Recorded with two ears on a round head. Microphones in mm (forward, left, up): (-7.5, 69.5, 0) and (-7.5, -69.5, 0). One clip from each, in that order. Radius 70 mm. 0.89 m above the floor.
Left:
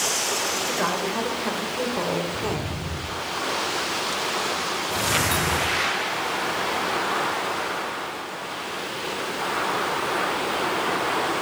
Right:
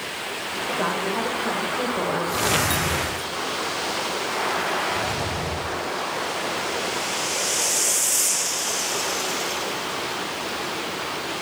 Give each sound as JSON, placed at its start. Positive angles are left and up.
{"t": 0.7, "sound": "a woman speaking", "side_deg": 5, "distance_m": 3.5}